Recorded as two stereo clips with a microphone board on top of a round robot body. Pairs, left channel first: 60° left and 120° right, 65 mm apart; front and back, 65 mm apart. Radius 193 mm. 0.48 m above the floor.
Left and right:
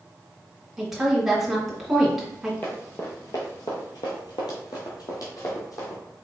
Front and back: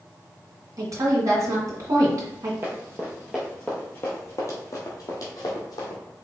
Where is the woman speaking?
155° left, 2.5 m.